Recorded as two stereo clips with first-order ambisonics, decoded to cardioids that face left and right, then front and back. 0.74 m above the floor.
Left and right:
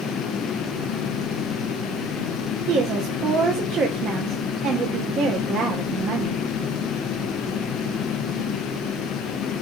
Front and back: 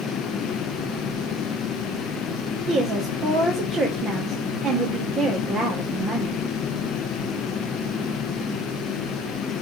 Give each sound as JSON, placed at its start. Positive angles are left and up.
{"t": 2.7, "sound": "a woman speaking", "azimuth_deg": -125, "distance_m": 0.7}